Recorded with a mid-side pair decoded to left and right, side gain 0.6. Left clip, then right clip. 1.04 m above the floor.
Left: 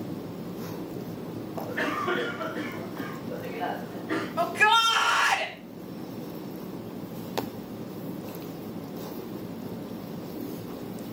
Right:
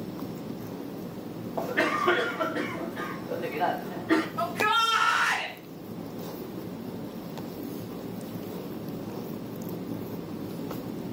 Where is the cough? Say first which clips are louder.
Right 4 dB; 30° right, 1.1 m.